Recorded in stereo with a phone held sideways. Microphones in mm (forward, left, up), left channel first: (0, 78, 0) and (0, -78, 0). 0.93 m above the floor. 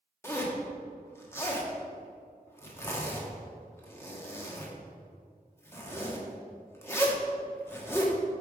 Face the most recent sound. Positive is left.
turn(degrees=15)  # may be behind; listen again after turning